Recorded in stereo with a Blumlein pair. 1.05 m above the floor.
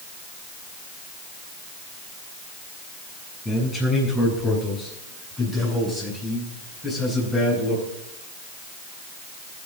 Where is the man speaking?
15° left, 8.5 m; by 7.8 s 5° left, 11 m.